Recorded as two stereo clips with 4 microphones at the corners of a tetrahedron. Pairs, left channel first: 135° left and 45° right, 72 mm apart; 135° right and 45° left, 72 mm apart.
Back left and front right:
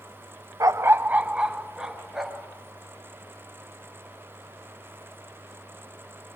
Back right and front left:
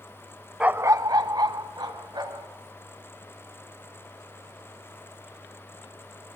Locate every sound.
0.6 s a dog barking: 30° right, 0.5 m; by 2.5 s 40° left, 2.5 m